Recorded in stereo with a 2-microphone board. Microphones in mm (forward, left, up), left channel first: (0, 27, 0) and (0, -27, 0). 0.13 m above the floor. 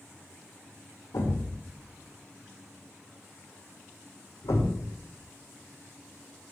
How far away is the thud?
About 1.6 m.